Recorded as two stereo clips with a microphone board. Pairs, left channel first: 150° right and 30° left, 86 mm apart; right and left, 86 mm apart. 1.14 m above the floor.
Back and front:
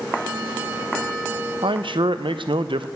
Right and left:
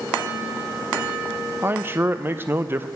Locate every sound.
1.6 s a man speaking: 25° left, 0.5 m